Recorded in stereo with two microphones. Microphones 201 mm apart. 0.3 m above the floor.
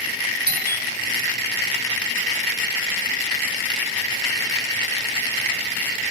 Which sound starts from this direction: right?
A doorbell, at 0.5 s.